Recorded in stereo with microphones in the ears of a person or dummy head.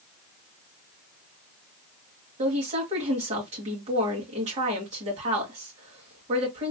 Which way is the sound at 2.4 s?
35° right (ahead or behind).